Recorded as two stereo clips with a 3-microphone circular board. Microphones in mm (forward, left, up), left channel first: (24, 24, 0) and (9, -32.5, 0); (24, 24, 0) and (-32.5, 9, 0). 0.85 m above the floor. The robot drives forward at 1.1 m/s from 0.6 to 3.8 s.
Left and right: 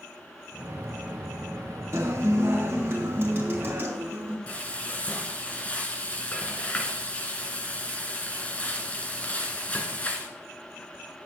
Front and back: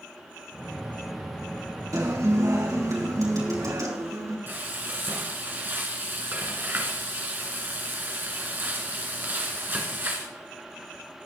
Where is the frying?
140° left, 2 m.